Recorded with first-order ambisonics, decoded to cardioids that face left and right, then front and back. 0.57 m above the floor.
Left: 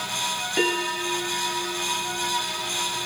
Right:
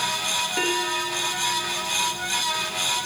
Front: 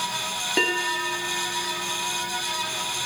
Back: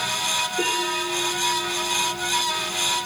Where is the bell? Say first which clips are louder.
Even, even; 10° left, 3 m.